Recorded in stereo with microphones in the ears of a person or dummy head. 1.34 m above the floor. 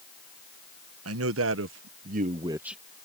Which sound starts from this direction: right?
A man speaking, at 1.1 s.